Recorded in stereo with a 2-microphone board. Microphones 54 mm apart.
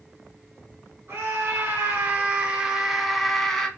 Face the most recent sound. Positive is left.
turn(degrees=10)  # may be behind; listen again after turning